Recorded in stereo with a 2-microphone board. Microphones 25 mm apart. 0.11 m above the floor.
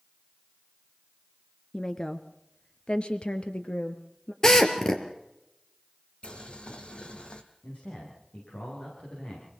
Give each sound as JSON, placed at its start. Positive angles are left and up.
{"t": 1.7, "sound": "a woman speaking", "side_deg": 20, "distance_m": 1.1}
{"t": 4.4, "sound": "a drill", "side_deg": 25, "distance_m": 2.5}
{"t": 6.2, "sound": "boiling", "side_deg": 50, "distance_m": 2.0}
{"t": 7.6, "sound": "a man speaking", "side_deg": 75, "distance_m": 9.0}